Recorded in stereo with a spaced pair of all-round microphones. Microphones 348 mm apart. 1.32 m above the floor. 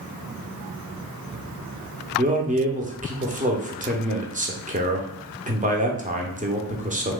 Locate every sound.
2.2 s a man speaking: 20° right (ahead or behind), 0.8 m